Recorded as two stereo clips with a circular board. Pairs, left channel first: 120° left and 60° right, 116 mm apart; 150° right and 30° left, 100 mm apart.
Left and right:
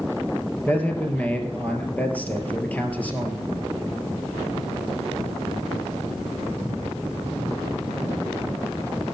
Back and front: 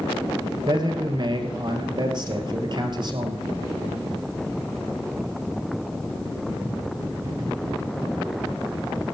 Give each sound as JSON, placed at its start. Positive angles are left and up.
{"t": 0.7, "sound": "a man speaking", "azimuth_deg": 50, "distance_m": 1.8}